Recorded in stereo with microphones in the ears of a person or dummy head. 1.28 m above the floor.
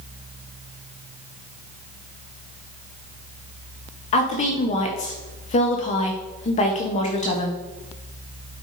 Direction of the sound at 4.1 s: 40° left (ahead or behind).